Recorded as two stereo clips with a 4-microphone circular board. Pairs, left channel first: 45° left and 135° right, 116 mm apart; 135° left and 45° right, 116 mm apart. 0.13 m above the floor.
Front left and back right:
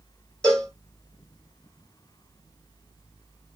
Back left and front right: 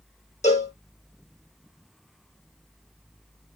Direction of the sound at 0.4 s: 130° left.